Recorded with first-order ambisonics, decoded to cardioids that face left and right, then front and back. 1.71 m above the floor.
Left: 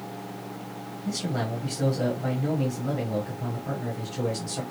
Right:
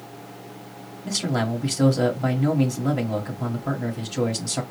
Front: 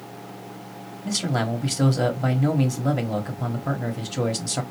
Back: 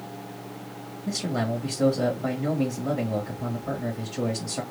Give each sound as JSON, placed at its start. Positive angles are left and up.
{"t": 1.1, "sound": "a man speaking", "azimuth_deg": -35, "distance_m": 1.3}